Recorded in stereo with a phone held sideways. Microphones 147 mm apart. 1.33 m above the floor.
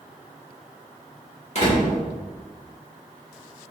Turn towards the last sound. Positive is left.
turn(degrees=50)  # may be behind; listen again after turning